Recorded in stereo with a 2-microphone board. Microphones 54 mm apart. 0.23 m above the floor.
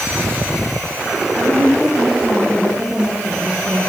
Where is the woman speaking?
20° right (ahead or behind), 9.5 m.